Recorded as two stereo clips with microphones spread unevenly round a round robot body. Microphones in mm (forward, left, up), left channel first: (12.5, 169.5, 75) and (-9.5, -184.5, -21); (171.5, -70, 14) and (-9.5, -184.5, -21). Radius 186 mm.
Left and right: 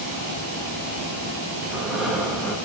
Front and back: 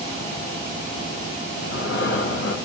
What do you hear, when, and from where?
1.6 s breathing: 10° right, 1.0 m